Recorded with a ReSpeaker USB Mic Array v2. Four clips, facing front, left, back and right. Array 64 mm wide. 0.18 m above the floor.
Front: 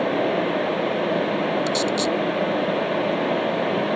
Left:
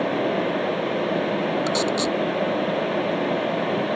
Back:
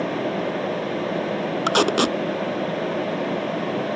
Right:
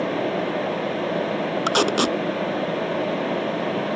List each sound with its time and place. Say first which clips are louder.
1.7 s tape being pulled: right 2 dB, back 2 dB; 140° right